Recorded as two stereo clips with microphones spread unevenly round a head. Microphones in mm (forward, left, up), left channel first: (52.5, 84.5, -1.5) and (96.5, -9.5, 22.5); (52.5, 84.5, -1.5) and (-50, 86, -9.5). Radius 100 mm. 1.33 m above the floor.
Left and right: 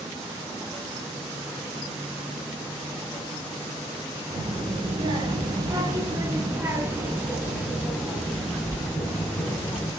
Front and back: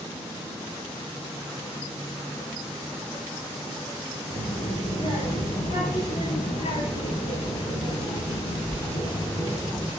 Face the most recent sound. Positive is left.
turn(degrees=45)